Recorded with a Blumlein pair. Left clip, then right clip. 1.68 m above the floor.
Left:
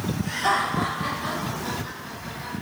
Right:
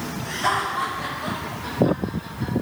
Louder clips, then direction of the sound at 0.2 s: Even; 60° right.